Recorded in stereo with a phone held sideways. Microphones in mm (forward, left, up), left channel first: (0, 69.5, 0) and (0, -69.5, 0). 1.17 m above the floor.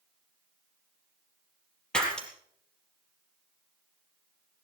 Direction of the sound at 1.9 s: 5° left (ahead or behind).